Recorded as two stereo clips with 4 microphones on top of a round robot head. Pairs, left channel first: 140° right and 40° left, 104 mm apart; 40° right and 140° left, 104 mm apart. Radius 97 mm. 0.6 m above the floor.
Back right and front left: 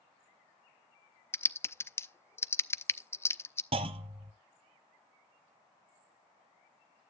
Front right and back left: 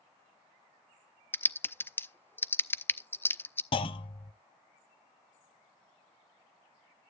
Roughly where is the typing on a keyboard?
Right.